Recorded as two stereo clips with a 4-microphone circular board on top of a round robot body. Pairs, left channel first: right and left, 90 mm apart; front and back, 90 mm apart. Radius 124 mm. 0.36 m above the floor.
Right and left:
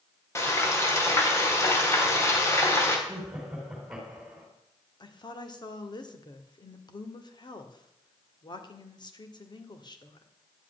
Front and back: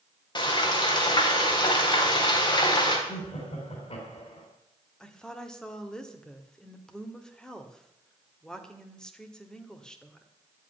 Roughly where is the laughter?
Ahead.